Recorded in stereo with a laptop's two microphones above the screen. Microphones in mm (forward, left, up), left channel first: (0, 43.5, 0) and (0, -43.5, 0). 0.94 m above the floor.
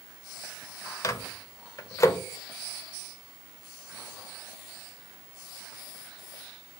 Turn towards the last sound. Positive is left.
turn(degrees=35)  # may be behind; listen again after turning